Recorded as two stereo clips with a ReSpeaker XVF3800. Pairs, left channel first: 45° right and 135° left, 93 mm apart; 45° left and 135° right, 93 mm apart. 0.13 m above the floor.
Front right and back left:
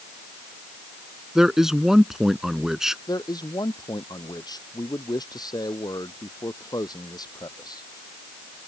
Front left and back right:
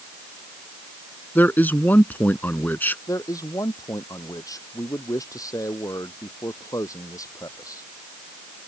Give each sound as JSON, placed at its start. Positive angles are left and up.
{"t": 1.4, "sound": "a man speaking", "azimuth_deg": 60}
{"t": 3.1, "sound": "a man speaking", "azimuth_deg": -5}